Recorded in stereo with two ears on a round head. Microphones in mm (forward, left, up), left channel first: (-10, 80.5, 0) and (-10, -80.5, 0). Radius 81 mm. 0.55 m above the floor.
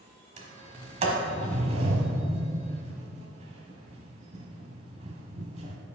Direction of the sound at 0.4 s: 35° right (ahead or behind).